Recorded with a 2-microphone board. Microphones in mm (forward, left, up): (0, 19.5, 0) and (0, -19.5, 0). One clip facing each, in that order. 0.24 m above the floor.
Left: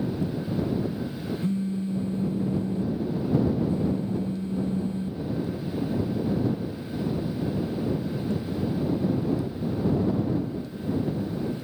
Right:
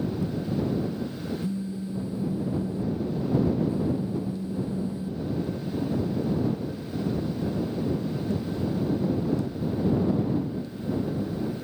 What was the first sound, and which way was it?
A phone buzzing, 50° left (ahead or behind).